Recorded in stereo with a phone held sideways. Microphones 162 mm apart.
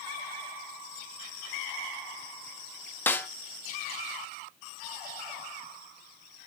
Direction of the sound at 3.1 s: 10° left (ahead or behind).